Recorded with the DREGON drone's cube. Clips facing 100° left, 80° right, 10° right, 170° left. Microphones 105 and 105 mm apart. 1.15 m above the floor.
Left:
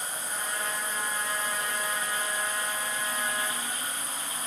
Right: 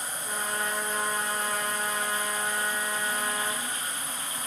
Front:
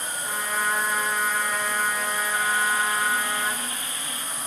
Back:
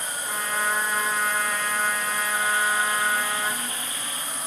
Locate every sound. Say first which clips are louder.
0.2 s a trumpet: right 4 dB, even; 90° right, 5.5 m